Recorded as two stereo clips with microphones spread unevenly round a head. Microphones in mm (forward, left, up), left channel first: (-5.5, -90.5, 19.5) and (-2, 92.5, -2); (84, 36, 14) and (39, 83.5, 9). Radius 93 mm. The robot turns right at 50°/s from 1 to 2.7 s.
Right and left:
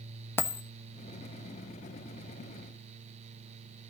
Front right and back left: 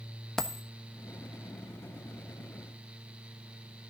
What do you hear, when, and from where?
0.4 s a dropped coin: 105° right, 1.0 m